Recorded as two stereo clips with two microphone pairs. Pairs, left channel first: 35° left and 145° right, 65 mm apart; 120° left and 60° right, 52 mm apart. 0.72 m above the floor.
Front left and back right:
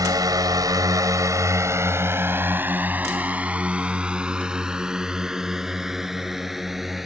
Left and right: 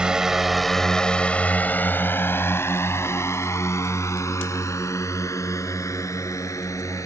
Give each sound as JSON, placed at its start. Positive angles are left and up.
{"t": 0.0, "sound": "a drone", "azimuth_deg": -135}